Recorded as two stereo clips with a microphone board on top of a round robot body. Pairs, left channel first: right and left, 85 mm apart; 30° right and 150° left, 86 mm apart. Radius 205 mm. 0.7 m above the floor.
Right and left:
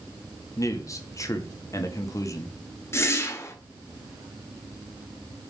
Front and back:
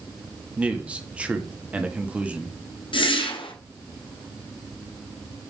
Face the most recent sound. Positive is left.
turn(degrees=-30)